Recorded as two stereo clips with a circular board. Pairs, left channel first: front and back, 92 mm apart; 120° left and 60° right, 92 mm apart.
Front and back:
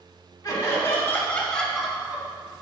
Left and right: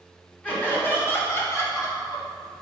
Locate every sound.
0.4 s laughter: 50° left, 2.5 m; by 2.3 s 125° left, 1.5 m